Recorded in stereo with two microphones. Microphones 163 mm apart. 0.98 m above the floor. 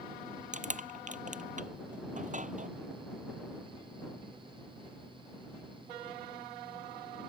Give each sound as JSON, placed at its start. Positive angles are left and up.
{"t": 0.5, "sound": "crushing", "side_deg": -45}